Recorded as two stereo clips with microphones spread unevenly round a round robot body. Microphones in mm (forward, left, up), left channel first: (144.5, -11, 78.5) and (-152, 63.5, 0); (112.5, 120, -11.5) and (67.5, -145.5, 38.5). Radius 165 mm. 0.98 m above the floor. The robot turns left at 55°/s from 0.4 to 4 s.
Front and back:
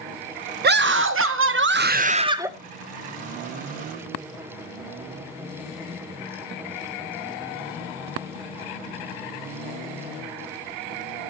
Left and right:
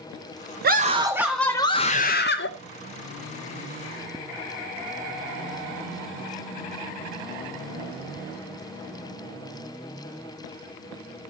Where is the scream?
160° right, 0.6 m; by 2.5 s 95° left, 0.6 m.